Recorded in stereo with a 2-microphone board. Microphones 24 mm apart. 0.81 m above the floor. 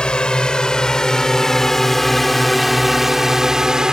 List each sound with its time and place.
0.0 s a drone: 40° left (ahead or behind); by 3.9 s 30° right (ahead or behind)